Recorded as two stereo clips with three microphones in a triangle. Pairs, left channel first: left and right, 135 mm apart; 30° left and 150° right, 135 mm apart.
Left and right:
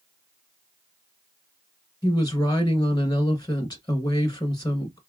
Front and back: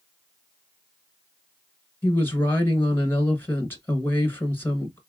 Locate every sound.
2.0 s a woman speaking: 85° left, 1.2 m